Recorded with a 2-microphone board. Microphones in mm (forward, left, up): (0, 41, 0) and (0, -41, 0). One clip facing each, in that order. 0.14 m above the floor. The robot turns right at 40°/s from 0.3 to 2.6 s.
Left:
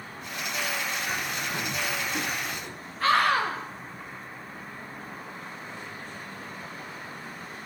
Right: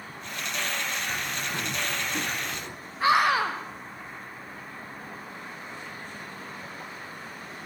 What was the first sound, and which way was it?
A bird, 15° left (ahead or behind).